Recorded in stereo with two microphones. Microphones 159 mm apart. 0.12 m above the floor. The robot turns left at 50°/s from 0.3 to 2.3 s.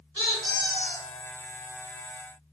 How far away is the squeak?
About 1.3 m.